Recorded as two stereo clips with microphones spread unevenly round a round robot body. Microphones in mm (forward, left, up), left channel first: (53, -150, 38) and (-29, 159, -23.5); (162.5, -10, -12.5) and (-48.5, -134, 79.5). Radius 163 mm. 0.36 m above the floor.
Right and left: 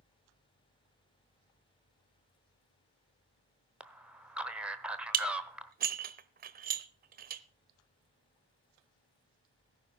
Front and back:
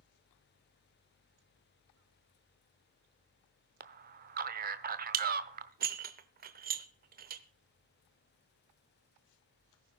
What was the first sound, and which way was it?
A man speaking, 155° left.